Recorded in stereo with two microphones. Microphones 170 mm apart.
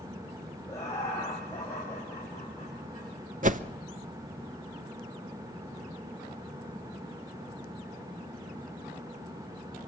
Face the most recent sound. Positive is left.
turn(degrees=-50)  # may be behind; listen again after turning